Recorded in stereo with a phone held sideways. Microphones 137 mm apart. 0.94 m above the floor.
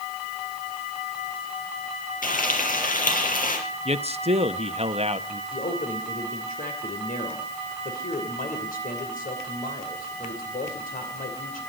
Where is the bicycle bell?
I don't hear a bicycle bell.